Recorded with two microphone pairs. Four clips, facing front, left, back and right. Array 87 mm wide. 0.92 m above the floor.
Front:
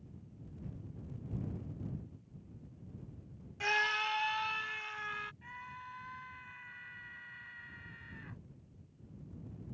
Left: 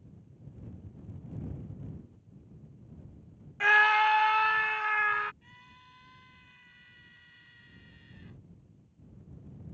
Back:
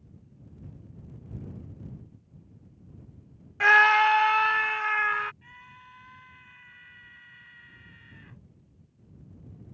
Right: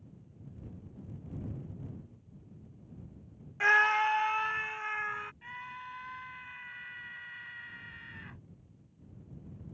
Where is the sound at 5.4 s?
70° right.